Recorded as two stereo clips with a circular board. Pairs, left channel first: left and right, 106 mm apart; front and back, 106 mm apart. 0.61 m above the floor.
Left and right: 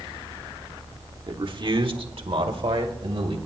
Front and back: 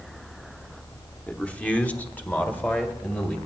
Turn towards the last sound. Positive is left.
turn(degrees=-70)